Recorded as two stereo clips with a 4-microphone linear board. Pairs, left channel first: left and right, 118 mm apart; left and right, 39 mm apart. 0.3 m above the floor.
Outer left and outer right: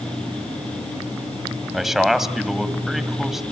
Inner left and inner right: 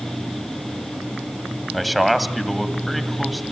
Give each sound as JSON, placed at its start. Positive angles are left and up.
{"t": 1.7, "sound": "a man speaking", "side_deg": -5, "distance_m": 2.0}